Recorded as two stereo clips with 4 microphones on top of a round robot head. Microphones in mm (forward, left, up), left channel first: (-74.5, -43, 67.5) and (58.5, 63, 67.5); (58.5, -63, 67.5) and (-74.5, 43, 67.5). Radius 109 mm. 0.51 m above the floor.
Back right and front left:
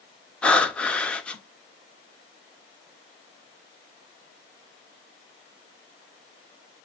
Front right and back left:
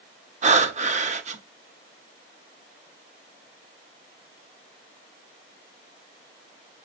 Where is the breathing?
135° left, 0.9 m.